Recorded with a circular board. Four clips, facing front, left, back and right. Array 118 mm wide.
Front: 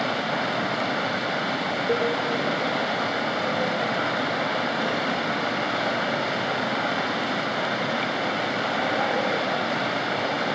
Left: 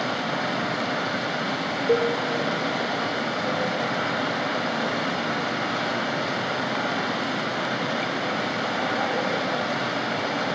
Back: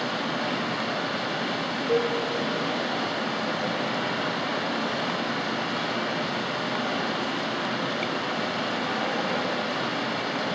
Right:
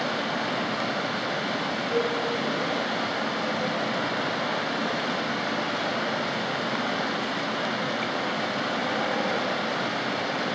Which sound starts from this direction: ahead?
Running water, at 0.0 s.